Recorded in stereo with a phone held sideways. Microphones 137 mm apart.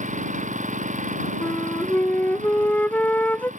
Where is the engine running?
65° right (ahead or behind).